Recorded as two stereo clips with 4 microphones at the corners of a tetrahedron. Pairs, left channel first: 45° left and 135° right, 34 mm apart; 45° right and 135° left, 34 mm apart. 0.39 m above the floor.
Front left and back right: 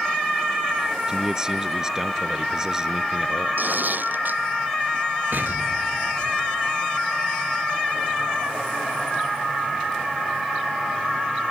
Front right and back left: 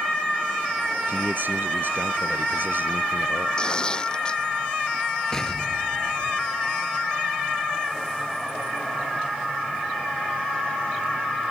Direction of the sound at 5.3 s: 120° right.